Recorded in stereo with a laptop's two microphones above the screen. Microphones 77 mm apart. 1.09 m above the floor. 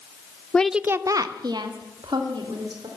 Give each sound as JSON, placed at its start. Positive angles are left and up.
{"t": 0.5, "sound": "a woman speaking", "side_deg": 20, "distance_m": 0.6}